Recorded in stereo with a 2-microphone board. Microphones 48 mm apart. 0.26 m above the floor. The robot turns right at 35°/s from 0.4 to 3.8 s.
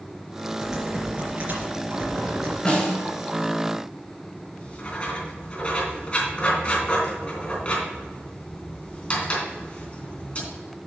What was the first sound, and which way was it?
Typing on a keyboard, 170° right.